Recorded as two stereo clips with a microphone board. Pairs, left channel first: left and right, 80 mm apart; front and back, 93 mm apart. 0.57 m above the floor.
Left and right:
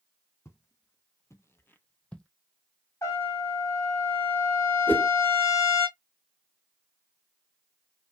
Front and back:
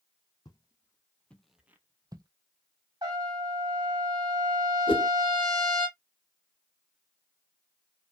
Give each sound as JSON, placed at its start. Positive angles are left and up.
{"t": 0.5, "sound": "footsteps", "azimuth_deg": 35, "distance_m": 1.1}
{"t": 3.0, "sound": "a trumpet", "azimuth_deg": 140, "distance_m": 1.4}
{"t": 4.9, "sound": "a whoosh", "azimuth_deg": 25, "distance_m": 0.8}